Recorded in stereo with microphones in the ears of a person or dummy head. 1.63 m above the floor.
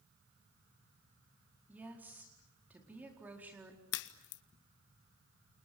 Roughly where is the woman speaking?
Centre.